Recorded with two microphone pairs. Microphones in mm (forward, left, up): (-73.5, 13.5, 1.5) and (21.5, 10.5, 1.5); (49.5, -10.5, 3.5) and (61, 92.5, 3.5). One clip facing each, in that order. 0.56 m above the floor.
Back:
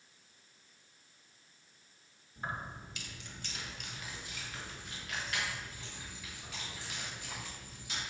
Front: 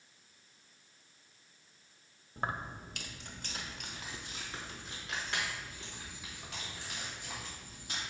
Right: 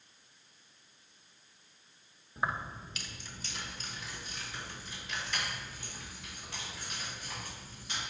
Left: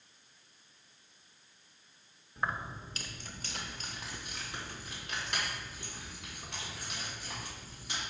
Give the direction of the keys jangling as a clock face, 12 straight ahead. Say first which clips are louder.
Front 3 dB, right 1 dB; 1 o'clock.